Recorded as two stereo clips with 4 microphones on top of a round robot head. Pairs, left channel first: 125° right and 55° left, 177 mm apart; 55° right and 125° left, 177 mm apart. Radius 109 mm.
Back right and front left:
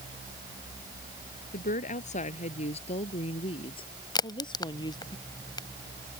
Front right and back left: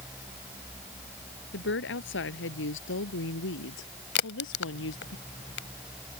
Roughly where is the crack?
Ahead right.